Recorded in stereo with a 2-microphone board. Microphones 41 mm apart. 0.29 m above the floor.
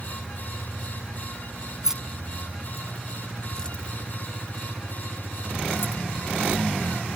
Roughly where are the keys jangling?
Centre.